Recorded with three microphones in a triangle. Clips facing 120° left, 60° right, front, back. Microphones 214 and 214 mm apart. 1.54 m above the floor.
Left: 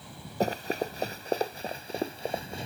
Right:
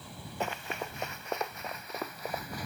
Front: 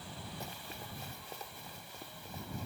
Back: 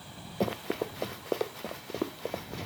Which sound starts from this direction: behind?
Running footsteps, at 0.4 s.